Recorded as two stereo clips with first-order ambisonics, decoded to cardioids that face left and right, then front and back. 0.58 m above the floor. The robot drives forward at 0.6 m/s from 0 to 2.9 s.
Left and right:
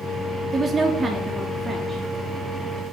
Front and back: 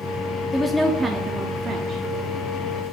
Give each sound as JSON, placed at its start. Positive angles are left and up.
{"t": 0.5, "sound": "a woman speaking", "azimuth_deg": -55, "distance_m": 0.7}